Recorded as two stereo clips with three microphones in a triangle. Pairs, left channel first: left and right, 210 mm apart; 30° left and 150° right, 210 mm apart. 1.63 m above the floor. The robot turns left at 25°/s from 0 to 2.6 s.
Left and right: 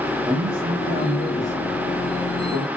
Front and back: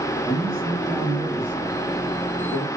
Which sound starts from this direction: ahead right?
A man speaking, at 0.2 s.